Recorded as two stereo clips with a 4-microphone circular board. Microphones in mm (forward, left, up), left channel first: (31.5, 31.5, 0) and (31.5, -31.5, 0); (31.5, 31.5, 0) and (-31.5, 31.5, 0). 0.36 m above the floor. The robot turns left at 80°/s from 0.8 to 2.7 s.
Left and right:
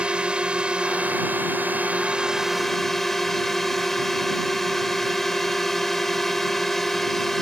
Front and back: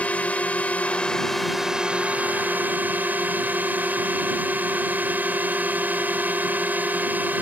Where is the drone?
35° right; by 7.4 s 170° left.